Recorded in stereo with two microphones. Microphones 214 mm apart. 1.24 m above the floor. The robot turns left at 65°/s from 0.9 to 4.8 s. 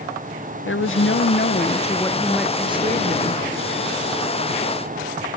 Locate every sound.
0.7 s a woman speaking: 95° left, 0.9 m; by 3.4 s 70° right, 0.9 m